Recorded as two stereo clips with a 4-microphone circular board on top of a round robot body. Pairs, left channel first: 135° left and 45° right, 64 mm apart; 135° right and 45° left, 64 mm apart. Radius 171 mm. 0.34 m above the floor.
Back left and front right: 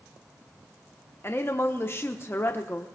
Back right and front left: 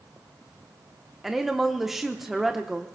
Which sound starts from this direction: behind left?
A woman speaking, at 1.2 s.